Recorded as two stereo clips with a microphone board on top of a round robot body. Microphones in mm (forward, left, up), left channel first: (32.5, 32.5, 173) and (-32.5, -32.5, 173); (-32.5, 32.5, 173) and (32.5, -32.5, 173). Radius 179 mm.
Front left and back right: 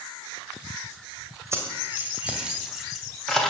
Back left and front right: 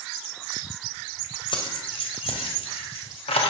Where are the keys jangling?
165° left, 2.5 m; by 3.5 s 130° left, 3 m.